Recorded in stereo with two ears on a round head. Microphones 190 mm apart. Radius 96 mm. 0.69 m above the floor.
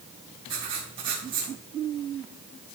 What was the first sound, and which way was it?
Writing, 25° right (ahead or behind).